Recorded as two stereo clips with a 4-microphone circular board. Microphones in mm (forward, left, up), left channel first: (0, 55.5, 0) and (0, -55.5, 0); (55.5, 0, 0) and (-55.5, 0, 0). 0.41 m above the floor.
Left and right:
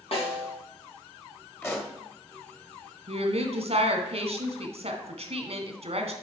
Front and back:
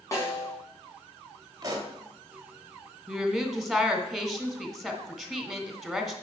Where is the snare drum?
60° left, 3 m.